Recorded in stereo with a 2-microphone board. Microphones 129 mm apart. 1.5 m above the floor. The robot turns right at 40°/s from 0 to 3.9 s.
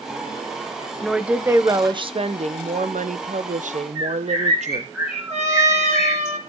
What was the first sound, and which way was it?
A woman speaking, straight behind.